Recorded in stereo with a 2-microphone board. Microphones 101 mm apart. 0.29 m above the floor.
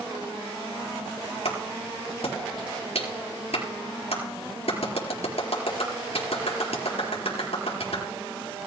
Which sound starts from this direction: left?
A clap, at 1.4 s.